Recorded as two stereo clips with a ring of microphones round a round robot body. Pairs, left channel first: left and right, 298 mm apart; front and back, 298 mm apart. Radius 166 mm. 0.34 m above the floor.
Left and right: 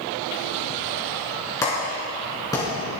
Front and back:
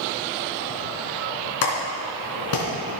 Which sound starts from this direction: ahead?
A clap, at 1.6 s.